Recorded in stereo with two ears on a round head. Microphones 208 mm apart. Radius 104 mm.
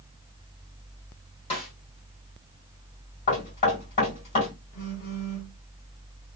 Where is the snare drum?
25° left (ahead or behind), 1.7 m.